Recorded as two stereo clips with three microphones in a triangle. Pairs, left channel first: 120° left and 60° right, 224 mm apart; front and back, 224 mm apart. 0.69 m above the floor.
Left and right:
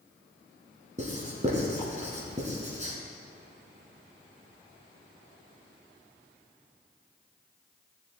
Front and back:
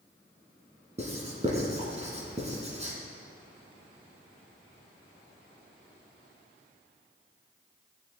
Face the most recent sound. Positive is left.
turn(degrees=-120)